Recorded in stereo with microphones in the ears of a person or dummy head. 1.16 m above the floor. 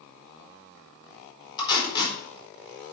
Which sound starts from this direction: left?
Tape being pulled, at 1.6 s.